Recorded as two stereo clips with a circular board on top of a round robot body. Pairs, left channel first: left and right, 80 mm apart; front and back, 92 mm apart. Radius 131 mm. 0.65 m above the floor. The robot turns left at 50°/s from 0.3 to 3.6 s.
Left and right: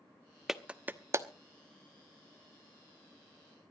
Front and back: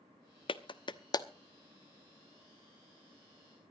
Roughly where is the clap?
Ahead.